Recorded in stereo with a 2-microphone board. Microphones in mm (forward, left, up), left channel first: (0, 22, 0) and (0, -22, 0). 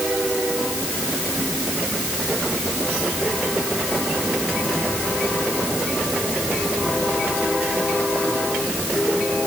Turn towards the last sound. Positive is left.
No sound to turn to.